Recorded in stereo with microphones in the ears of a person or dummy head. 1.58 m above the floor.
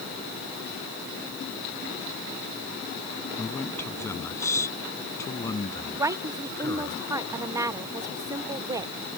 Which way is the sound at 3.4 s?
10° left (ahead or behind).